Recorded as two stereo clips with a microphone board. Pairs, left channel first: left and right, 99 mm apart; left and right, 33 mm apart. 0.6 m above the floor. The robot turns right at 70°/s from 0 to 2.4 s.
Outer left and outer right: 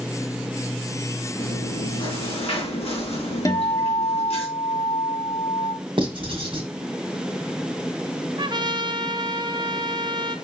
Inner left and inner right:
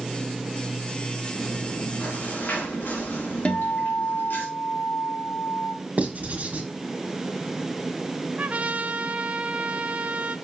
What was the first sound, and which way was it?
Chewing, 5° left.